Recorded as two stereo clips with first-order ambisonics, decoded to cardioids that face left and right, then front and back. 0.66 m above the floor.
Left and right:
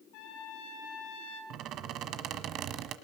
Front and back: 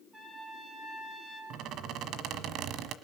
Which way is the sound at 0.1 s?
105° left.